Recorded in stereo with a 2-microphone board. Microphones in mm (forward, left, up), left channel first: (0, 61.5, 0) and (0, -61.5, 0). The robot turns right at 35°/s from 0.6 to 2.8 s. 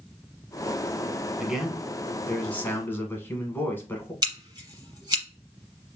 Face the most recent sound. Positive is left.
turn(degrees=-35)  # may be behind; listen again after turning